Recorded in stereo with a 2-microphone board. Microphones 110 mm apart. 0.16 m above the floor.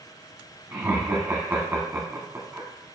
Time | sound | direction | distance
0.7 | laughter | 20° right (ahead or behind) | 1.1 m